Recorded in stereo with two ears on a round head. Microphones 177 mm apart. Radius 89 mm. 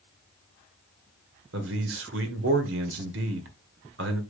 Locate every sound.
1.5 s a man speaking: 65° right (ahead or behind), 1.9 m